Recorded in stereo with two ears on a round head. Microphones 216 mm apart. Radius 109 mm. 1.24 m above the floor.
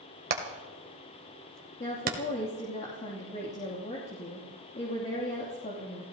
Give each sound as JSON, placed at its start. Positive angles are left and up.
{"t": 0.3, "sound": "hammering", "side_deg": -40, "distance_m": 2.0}
{"t": 1.8, "sound": "a woman speaking", "side_deg": 30, "distance_m": 3.0}